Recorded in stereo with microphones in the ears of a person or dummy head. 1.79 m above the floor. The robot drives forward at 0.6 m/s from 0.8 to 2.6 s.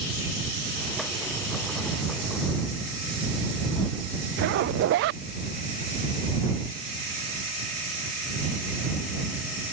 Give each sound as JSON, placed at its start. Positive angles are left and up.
{"t": 4.4, "sound": "a zipper", "side_deg": -50}